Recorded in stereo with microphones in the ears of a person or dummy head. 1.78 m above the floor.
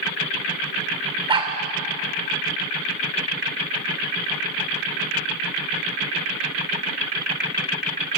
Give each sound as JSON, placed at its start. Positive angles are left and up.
{"t": 1.3, "sound": "a dog barking", "side_deg": -25, "distance_m": 2.5}